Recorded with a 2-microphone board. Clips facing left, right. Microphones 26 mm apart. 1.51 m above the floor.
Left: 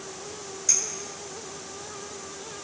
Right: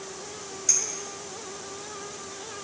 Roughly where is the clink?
Centre.